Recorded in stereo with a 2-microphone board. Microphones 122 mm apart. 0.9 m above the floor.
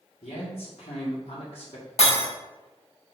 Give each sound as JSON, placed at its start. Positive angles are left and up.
{"t": 0.2, "sound": "a man speaking", "side_deg": 70, "distance_m": 2.0}
{"t": 2.0, "sound": "breaking glass", "side_deg": 80, "distance_m": 3.0}